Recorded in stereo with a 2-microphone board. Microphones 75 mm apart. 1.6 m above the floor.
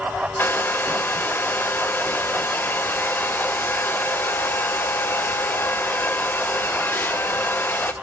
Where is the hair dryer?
30° left (ahead or behind), 1.0 m.